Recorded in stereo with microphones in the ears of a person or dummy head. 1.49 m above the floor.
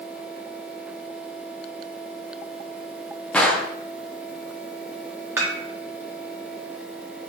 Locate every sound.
3.3 s a gunshot: 10° left (ahead or behind), 0.7 m
5.4 s dishes clattering: 15° right (ahead or behind), 1.7 m